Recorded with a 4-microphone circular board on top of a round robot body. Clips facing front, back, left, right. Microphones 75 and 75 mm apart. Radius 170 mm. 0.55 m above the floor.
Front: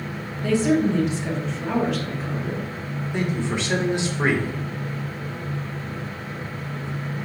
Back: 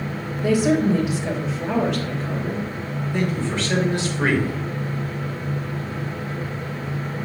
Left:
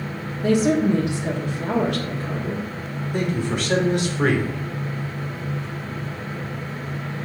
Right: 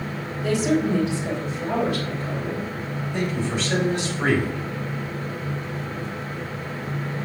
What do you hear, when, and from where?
0.4 s a woman speaking: 105° left, 1.4 m; by 2.7 s 85° left, 2 m
3.1 s a man speaking: 70° left, 2.5 m